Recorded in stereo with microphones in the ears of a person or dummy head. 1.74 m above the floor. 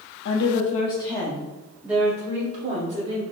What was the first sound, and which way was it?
A woman speaking, 65° left (ahead or behind).